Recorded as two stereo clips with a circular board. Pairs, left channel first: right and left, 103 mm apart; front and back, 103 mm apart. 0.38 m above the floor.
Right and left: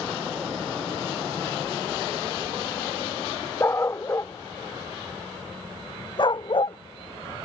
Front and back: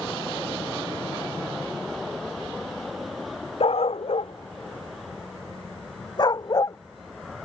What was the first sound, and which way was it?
A dog barking, 25° right.